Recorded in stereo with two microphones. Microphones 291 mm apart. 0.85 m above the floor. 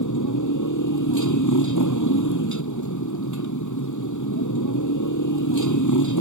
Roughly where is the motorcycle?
Left.